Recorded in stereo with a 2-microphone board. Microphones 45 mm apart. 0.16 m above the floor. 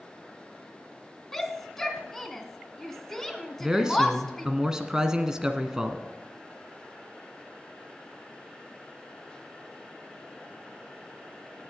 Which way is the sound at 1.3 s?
10° left (ahead or behind).